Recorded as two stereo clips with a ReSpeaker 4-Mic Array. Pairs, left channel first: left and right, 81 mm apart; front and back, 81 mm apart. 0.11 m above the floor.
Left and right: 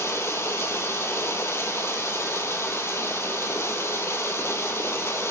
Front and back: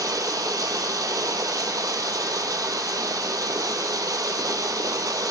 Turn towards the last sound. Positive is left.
turn(degrees=145)